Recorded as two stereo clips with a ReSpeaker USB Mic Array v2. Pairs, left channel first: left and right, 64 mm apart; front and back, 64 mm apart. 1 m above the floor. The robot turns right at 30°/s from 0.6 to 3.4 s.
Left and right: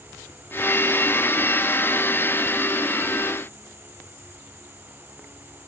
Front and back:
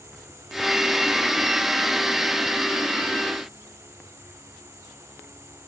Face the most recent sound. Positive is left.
No sound to turn to.